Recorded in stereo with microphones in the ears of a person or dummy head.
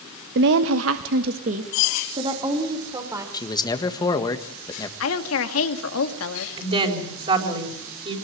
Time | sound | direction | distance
0.3 | a woman speaking | 60° right (ahead or behind) | 1.2 m
3.3 | a man speaking | 20° left (ahead or behind) | 1.6 m
5.0 | a woman speaking | 85° left | 2.5 m
6.6 | a woman speaking | 30° right (ahead or behind) | 5 m